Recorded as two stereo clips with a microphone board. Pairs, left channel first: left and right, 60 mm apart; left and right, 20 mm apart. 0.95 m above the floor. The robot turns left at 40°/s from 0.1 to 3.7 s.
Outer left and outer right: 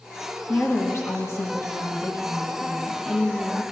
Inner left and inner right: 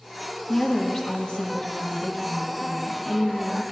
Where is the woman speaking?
130° left, 1.1 m; by 3.6 s 5° left, 1.1 m.